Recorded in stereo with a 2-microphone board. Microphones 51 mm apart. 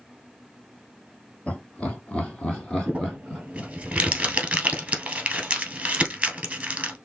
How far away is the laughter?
About 1.9 m.